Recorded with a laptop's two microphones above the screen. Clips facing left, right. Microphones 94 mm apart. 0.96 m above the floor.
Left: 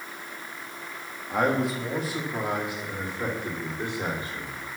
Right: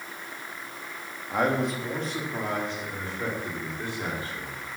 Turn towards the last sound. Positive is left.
turn(degrees=20)  # may be behind; listen again after turning